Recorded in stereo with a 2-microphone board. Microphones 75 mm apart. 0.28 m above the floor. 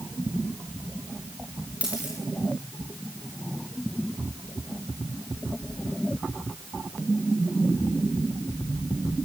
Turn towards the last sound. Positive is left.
turn(degrees=-20)  # may be behind; listen again after turning